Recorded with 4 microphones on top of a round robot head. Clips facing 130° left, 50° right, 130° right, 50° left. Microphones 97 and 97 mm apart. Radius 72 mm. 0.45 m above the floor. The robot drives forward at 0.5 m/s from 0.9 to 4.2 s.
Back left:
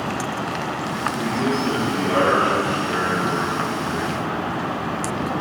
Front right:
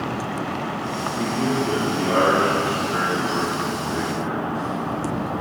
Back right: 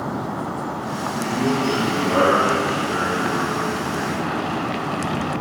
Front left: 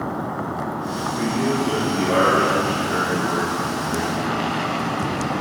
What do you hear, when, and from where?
1.1 s a man speaking: 15° left, 4.5 m; by 4.4 s 20° left, 3 m